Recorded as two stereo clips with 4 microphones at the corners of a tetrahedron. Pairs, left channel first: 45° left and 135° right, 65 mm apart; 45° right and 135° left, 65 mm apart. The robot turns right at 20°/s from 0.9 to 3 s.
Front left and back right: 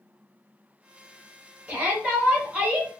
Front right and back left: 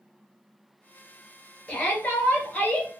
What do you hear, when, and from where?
1.7 s a shout: 90° right, 1.2 m; by 2.9 s 65° right, 1.2 m